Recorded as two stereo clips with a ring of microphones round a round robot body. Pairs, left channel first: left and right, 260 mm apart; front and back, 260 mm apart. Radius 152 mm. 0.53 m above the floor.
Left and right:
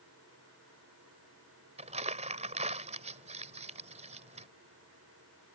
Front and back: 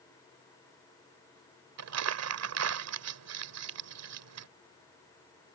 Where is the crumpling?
155° right.